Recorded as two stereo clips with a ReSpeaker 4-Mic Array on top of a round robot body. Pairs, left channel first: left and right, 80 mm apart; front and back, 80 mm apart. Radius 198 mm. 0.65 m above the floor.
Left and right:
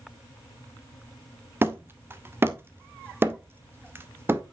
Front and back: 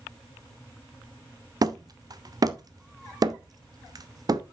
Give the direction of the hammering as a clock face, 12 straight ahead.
5 o'clock.